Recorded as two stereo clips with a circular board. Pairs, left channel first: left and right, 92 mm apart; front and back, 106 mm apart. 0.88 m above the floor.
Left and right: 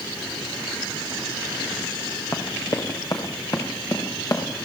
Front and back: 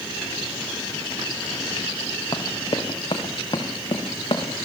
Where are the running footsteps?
45° left, 4 m; by 4.4 s 40° left, 6 m.